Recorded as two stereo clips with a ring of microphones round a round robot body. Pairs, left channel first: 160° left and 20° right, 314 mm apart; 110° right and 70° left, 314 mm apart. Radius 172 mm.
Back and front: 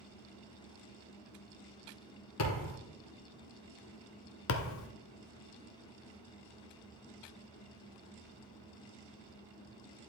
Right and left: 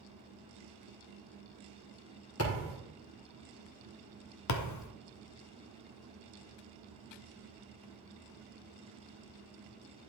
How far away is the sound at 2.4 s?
About 2.5 m.